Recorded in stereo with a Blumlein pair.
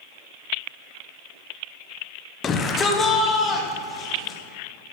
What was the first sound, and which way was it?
A shout, 25° left.